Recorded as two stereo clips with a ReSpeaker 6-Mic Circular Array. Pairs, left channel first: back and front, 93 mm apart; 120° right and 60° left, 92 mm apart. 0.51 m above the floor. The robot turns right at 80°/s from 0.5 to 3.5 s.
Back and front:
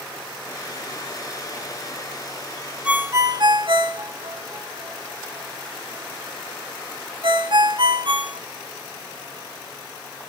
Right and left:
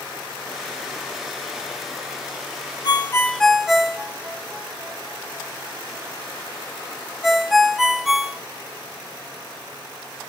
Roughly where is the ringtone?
Right.